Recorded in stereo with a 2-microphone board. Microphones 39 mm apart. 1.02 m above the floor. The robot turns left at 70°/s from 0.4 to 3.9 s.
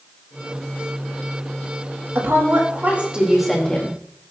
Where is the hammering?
I don't hear hammering.